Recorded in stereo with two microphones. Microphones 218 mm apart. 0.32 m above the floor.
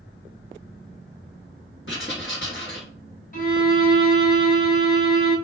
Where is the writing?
60° left (ahead or behind), 0.9 m.